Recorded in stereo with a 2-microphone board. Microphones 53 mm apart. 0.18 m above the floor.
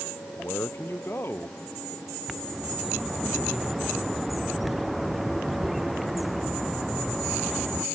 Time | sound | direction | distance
0.4 | a man speaking | 50° left (ahead or behind) | ?
2.3 | a bird | centre (ahead or behind) | ?